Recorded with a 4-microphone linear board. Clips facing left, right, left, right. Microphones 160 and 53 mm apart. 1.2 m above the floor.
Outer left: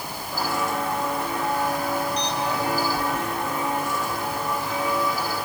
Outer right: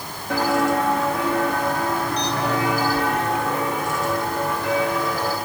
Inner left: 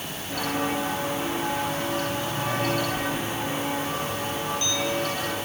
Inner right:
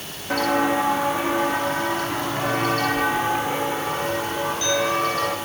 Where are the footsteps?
75° right (ahead or behind), 5 m; by 5.4 s 70° right (ahead or behind), 7 m.